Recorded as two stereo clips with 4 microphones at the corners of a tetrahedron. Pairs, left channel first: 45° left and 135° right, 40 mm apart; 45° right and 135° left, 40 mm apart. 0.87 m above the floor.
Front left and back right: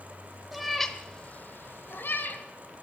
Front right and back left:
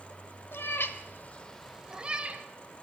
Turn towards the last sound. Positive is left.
turn(degrees=85)